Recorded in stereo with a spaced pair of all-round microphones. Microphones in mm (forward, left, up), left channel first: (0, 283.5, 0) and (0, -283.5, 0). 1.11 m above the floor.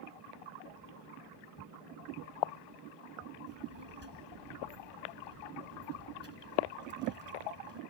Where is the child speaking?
45° right (ahead or behind).